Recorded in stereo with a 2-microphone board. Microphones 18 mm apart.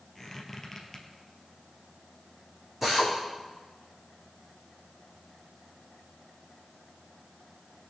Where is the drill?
10° right (ahead or behind), 5 m.